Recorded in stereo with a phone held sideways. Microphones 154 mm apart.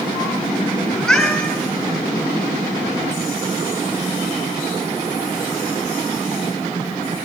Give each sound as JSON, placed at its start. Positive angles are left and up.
{"t": 0.9, "sound": "a cat meowing", "side_deg": 0, "distance_m": 4.5}